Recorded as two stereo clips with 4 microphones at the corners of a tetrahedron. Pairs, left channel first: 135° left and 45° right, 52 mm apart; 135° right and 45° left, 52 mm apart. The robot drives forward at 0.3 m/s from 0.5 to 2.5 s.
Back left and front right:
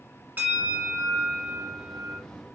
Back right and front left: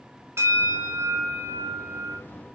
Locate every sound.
0.4 s a bell: 10° left, 1.0 m; by 2.2 s 15° left, 0.5 m